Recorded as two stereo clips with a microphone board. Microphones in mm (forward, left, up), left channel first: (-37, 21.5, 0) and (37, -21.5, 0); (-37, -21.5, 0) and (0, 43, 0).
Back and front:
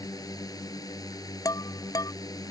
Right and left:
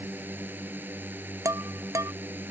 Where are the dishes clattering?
105° left.